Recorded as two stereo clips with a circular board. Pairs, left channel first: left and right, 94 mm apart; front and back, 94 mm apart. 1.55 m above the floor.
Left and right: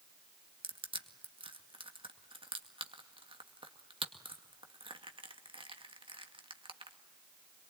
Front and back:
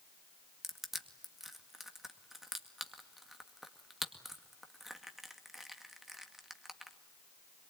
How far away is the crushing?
About 2.0 m.